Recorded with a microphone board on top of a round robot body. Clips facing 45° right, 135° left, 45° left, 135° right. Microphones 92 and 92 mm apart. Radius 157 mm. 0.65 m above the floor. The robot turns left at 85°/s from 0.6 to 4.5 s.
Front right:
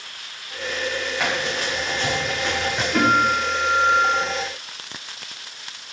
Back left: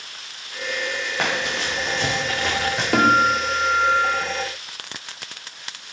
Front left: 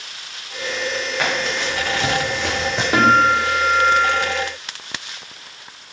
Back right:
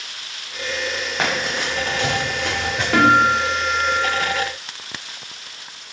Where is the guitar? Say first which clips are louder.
Back left 2 dB, even; 115° left, 2.5 m; by 4.2 s 5° left, 2.5 m.